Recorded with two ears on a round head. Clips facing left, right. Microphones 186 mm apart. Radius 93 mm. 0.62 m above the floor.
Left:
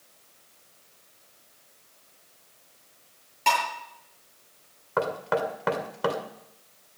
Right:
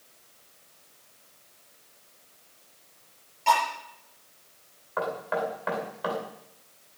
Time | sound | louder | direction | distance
3.5 | dishes clattering | right 2 dB | 70° left (ahead or behind) | 9 m
5.0 | knocking | left 3 dB | 60° left (ahead or behind) | 2 m